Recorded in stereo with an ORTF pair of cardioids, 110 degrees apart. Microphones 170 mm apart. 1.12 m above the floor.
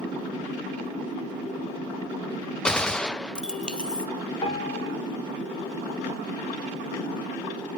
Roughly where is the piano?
Ahead left.